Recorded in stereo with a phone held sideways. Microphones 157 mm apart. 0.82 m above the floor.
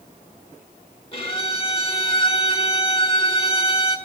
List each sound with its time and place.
1.1 s a violin: 35° left (ahead or behind), 1.2 m